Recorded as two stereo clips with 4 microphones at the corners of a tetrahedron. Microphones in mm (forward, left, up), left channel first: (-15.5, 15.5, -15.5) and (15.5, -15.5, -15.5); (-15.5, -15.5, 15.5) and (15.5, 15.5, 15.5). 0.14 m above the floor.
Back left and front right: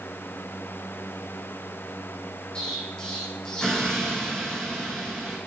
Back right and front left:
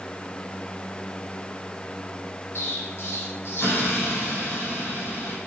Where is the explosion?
155° right, 4 m.